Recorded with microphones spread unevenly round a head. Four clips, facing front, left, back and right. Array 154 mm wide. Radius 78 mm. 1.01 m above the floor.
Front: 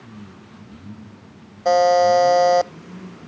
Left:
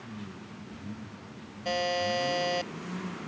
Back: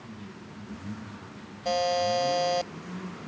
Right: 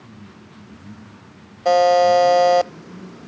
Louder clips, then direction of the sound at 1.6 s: Right 16 dB, front 12 dB; 55° right.